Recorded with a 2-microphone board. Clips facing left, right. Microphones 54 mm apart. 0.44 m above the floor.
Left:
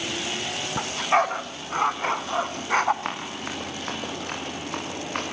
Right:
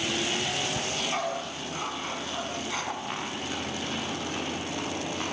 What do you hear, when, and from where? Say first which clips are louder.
0.8 s a dog barking: left 8 dB; 50° left (ahead or behind), 1.3 m
3.0 s running footsteps: left 2 dB; 75° left (ahead or behind), 9 m; by 5.2 s 65° left (ahead or behind), 8.5 m